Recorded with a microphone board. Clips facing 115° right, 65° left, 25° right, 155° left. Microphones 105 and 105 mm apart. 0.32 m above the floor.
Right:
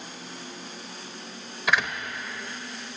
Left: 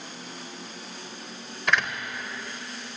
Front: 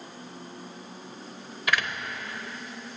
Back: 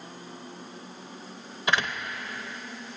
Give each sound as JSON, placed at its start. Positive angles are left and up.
{"t": 1.7, "sound": "a door slam", "azimuth_deg": 170, "distance_m": 0.6}